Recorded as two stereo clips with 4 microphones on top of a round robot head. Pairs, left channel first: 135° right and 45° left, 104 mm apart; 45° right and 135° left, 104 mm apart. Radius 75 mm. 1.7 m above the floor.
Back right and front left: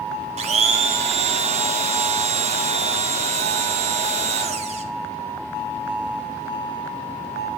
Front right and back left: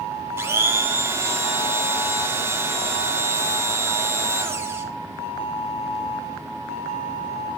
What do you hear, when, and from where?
0.4 s a blender: 70° left, 2.5 m